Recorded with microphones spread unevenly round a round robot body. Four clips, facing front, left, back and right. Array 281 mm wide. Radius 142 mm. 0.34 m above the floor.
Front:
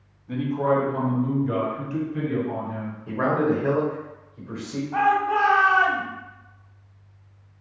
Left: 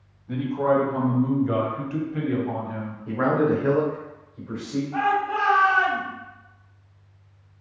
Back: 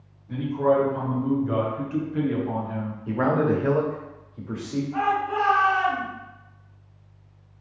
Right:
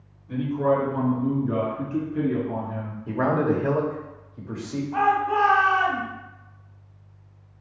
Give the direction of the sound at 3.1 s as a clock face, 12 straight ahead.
4 o'clock.